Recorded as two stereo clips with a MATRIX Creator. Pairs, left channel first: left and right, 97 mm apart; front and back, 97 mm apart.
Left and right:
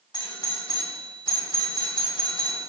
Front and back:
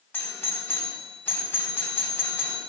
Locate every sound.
0.1 s a doorbell: 65° left, 3.5 m